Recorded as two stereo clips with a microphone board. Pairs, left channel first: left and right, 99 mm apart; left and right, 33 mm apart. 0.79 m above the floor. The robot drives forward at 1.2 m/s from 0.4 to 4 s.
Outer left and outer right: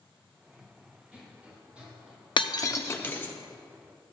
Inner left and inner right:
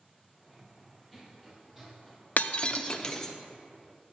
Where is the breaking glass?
55° left (ahead or behind), 0.6 m; by 3.3 s 20° left (ahead or behind), 1.6 m.